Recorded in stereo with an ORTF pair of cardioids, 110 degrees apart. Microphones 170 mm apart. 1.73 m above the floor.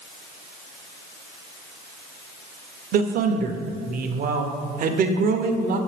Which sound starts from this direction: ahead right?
A man speaking, at 2.9 s.